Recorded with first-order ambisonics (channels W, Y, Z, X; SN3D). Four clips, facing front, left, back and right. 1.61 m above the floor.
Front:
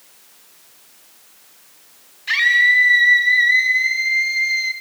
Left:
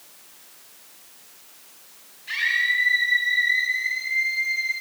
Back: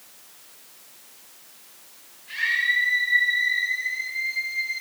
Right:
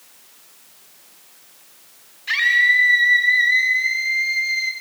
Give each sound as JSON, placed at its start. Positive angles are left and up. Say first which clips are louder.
{"t": 2.3, "sound": "a scream", "louder": "right 7 dB, front 9 dB", "azimuth_deg": -25, "distance_m": 5.5}